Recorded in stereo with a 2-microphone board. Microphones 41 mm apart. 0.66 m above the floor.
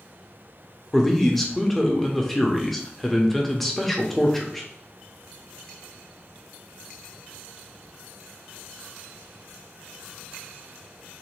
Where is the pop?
No pop in this recording.